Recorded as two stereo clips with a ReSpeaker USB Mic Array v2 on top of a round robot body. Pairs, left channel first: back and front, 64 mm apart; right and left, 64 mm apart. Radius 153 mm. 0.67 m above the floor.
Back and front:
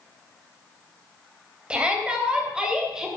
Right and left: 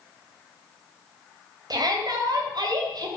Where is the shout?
75° left, 3.5 m; by 3.1 s 80° left, 3 m.